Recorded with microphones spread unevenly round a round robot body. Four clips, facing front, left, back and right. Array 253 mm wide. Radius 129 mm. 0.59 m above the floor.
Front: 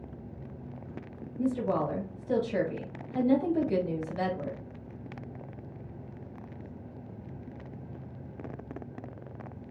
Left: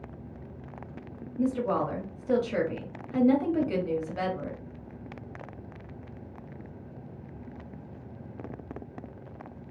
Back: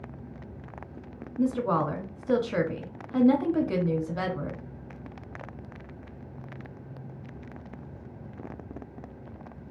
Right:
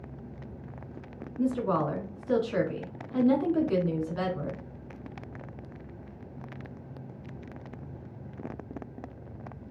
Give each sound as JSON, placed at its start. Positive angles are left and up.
{"t": 1.4, "sound": "a woman speaking", "azimuth_deg": 160, "distance_m": 1.1}